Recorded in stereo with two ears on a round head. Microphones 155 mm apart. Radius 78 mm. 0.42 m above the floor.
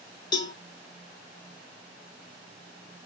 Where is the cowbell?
25° left (ahead or behind), 0.6 m.